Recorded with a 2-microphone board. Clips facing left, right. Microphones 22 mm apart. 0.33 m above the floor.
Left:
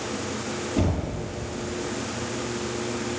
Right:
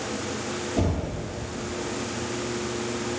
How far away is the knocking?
About 2 m.